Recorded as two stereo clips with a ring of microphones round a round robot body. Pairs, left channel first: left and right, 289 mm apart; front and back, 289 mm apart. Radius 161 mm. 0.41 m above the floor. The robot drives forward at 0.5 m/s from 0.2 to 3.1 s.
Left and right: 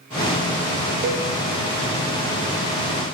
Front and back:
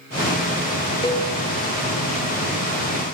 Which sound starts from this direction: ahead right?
A cowbell, at 1.0 s.